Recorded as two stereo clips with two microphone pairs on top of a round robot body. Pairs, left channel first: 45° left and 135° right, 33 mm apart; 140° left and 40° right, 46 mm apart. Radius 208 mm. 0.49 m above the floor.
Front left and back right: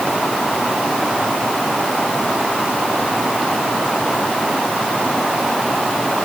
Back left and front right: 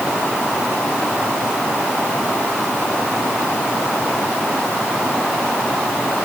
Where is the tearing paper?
No tearing paper in this recording.